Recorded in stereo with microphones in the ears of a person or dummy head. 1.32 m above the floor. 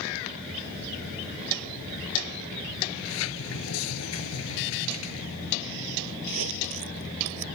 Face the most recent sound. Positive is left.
turn(degrees=-80)